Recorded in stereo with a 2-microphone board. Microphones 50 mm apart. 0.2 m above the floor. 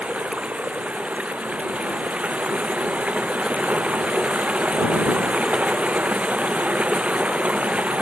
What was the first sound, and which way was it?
Running water, 25° right (ahead or behind).